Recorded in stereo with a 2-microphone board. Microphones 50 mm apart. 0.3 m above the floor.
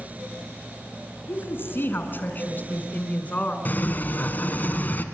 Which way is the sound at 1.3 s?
55° left (ahead or behind).